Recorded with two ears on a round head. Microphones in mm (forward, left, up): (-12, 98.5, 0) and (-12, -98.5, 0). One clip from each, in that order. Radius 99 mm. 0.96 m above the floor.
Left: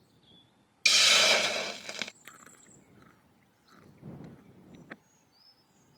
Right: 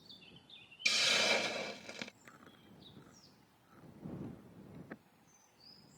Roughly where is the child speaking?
No child speaking in this recording.